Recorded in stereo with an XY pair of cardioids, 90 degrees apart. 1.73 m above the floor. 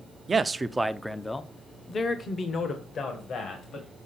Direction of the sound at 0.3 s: 35° right.